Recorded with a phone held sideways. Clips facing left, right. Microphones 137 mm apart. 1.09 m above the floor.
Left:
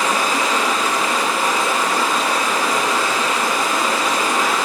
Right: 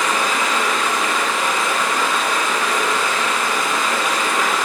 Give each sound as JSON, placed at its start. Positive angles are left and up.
{"t": 0.0, "sound": "running water", "side_deg": 35, "distance_m": 1.1}